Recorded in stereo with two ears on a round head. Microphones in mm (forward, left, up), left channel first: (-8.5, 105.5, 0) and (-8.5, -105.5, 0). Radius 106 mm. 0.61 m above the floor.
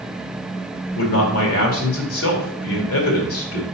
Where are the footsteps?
I don't hear footsteps.